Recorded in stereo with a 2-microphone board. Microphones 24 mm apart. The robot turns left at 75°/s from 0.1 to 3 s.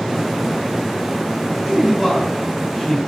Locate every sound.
1.6 s a man speaking: 10° right (ahead or behind), 1.7 m; by 3.0 s 30° left (ahead or behind), 1.7 m